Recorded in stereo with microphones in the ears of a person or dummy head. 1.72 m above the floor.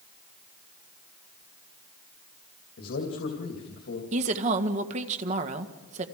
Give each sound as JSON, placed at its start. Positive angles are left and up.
{"t": 2.8, "sound": "a man speaking", "side_deg": 90, "distance_m": 3.0}
{"t": 4.1, "sound": "a woman speaking", "side_deg": -40, "distance_m": 1.8}